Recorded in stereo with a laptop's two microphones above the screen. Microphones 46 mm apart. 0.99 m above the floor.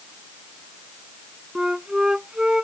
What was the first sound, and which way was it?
A flute, 15° right (ahead or behind).